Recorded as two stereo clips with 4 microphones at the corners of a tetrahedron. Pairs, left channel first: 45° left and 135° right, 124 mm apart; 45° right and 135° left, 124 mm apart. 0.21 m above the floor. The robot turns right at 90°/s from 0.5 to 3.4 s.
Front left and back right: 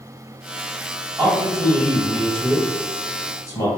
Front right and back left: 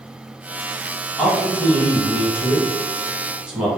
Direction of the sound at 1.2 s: 135° right.